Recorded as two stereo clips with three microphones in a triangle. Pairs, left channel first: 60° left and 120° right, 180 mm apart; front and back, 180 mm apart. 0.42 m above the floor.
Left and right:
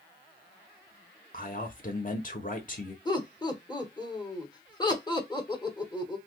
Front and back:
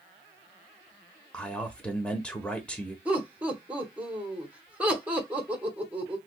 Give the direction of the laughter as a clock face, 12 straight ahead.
9 o'clock.